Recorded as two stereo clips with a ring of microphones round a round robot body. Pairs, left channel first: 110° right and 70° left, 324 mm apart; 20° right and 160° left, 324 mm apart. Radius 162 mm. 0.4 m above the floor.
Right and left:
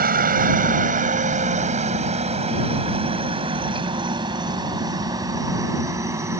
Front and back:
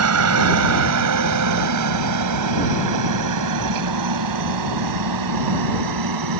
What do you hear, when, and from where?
0.0 s a helicopter: 125° left; by 6.4 s 150° left